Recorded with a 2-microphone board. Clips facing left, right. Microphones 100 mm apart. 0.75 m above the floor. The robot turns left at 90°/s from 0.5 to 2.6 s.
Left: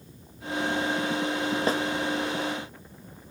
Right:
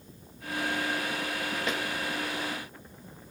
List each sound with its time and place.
1.7 s a snare drum: 35° left (ahead or behind), 0.6 m; by 1.8 s 45° left (ahead or behind), 0.6 m